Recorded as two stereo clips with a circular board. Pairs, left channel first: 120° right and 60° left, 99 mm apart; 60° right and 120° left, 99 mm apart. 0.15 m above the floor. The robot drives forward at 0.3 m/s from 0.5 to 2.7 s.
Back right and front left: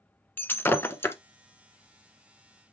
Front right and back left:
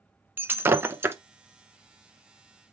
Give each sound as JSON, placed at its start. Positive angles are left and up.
{"t": 0.4, "sound": "breaking glass", "azimuth_deg": 180, "distance_m": 0.6}